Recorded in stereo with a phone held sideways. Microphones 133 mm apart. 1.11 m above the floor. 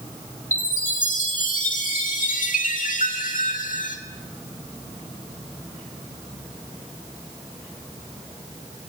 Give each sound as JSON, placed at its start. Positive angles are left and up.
{"t": 0.5, "sound": "a chime", "side_deg": 85, "distance_m": 1.9}